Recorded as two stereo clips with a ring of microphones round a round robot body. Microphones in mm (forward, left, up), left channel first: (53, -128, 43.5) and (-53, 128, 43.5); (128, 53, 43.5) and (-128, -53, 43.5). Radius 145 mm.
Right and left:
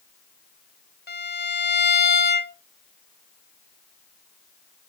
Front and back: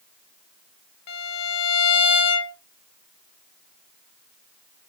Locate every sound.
1.1 s a violin: 10° right, 0.6 m